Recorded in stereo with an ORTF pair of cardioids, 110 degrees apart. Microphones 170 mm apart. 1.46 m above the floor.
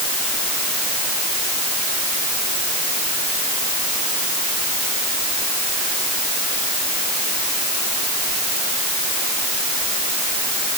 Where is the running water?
No running water in this recording.